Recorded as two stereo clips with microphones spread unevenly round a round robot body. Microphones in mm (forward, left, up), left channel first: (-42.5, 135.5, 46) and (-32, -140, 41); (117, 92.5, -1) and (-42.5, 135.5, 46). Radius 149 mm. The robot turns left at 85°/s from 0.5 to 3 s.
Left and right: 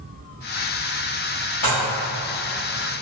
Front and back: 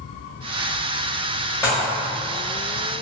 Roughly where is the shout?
I don't hear a shout.